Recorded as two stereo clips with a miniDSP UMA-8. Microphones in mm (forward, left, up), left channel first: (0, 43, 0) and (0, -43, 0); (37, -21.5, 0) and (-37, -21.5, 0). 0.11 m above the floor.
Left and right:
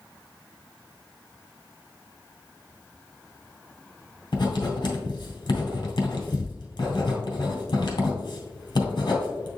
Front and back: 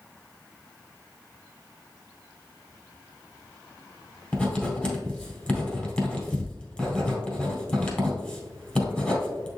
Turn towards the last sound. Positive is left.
turn(degrees=70)